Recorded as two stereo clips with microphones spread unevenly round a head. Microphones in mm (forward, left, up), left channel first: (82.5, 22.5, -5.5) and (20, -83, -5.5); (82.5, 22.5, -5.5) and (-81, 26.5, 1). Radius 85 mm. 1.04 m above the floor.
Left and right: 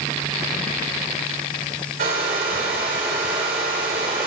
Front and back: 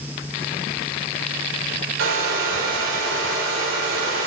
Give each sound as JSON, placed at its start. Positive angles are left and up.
{"t": 2.0, "sound": "a hair dryer", "azimuth_deg": -160, "distance_m": 3.5}